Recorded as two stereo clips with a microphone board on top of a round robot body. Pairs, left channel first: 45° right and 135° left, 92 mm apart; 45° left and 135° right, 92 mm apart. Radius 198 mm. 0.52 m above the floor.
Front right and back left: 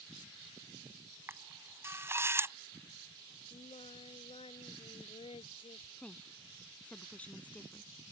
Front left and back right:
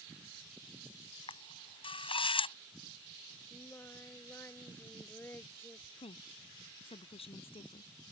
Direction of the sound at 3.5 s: 25° right.